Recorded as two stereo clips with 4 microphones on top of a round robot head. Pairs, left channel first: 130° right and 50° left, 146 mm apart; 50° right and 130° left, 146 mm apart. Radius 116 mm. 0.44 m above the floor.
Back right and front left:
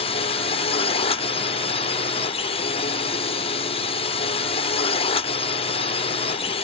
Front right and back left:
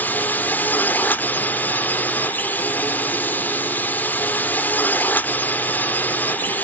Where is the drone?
120° right.